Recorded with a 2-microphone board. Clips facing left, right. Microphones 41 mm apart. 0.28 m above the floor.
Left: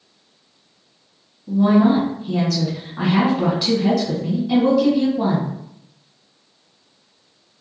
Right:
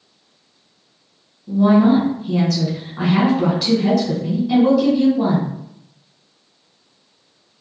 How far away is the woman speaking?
About 1.5 m.